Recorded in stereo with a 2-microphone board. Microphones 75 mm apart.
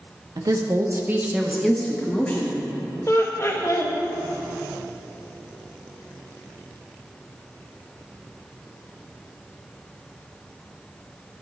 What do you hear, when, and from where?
0.4 s a woman speaking: 55° right (ahead or behind), 1.2 m; by 2.6 s 25° left (ahead or behind), 1.7 m
3.1 s laughter: 40° left (ahead or behind), 1.2 m